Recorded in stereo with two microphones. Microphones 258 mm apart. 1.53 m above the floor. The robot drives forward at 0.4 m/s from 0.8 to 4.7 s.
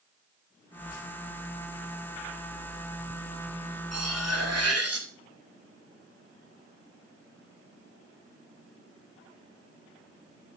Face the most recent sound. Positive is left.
turn(degrees=-70)  # may be behind; listen again after turning